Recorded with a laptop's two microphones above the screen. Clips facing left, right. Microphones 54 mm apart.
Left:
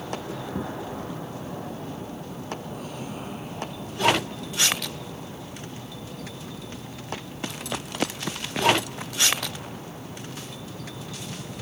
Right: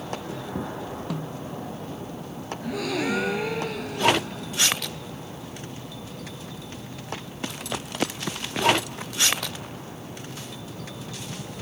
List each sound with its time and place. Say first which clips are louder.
1.1 s a snare drum: right 2 dB; 65° right (ahead or behind)
2.6 s a gasp: right 8 dB; 85° right